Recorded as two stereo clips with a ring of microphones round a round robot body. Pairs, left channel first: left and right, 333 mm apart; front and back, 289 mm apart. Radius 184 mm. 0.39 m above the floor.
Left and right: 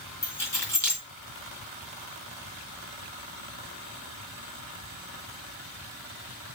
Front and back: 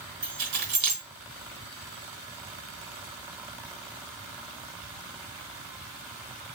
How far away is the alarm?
No alarm in this recording.